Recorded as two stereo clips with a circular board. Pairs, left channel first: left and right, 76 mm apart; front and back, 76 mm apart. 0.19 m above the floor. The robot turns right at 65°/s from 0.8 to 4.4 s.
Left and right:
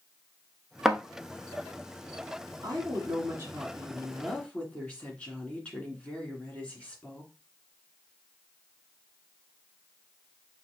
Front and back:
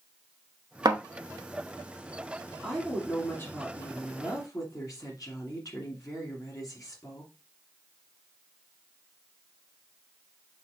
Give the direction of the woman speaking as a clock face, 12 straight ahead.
3 o'clock.